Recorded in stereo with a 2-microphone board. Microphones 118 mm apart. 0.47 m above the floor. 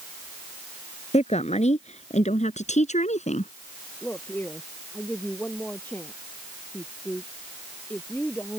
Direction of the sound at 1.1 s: 65° left (ahead or behind).